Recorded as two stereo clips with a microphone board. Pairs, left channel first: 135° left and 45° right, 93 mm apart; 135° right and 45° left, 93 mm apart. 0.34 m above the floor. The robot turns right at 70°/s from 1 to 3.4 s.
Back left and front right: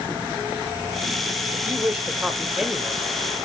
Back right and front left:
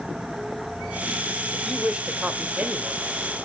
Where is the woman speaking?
50° right, 1.0 m; by 3.0 s 55° left, 1.0 m.